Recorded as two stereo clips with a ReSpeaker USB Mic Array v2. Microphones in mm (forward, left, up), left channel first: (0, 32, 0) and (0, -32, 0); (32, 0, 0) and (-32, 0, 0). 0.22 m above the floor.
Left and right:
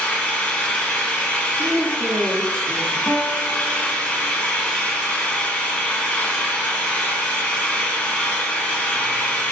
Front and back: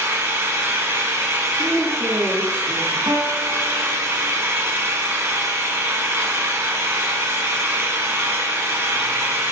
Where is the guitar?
150° left, 2 m.